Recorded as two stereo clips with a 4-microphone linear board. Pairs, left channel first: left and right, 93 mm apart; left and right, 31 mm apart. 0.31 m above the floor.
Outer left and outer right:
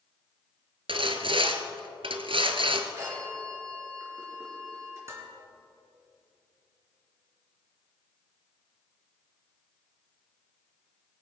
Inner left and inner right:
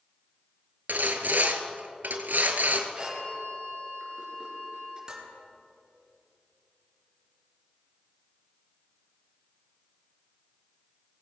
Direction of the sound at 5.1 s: 30° right (ahead or behind).